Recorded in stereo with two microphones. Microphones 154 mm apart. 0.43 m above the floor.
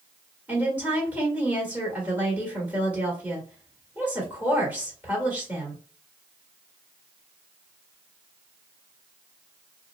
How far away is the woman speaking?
About 1.6 m.